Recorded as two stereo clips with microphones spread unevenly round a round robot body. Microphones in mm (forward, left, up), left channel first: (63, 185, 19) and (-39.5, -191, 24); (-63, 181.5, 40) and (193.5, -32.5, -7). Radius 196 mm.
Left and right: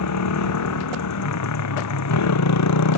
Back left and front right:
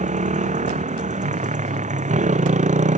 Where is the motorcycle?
30° left.